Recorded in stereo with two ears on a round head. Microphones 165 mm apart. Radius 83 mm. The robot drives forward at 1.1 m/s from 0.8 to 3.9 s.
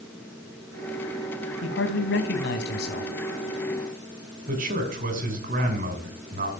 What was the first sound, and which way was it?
A man speaking, 75° left (ahead or behind).